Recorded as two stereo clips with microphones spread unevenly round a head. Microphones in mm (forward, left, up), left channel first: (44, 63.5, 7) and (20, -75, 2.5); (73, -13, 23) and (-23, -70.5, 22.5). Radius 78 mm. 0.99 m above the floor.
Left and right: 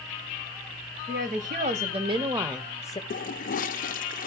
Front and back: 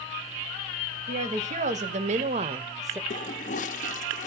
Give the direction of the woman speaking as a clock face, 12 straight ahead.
5 o'clock.